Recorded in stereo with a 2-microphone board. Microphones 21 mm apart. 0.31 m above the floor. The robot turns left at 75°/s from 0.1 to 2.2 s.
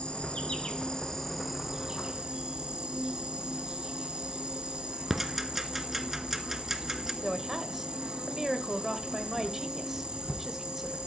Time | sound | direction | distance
0.0 | an insect | 100° left | 2 m
5.1 | ticking | 15° right (ahead or behind) | 1.3 m
7.2 | a woman speaking | 15° right (ahead or behind) | 1.2 m